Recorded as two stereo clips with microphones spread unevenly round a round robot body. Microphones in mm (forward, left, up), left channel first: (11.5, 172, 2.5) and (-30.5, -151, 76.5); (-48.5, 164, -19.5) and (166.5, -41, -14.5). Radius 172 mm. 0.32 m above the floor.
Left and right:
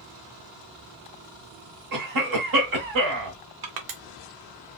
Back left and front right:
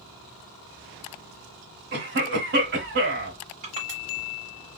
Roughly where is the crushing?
Right.